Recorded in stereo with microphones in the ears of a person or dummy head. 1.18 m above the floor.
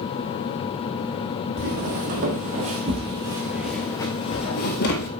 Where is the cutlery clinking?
I don't hear cutlery clinking.